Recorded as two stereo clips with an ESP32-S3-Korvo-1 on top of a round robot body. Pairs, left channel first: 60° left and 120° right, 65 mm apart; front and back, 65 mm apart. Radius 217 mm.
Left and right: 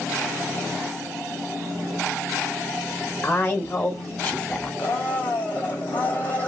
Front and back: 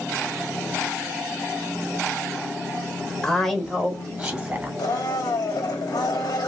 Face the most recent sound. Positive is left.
turn(degrees=-5)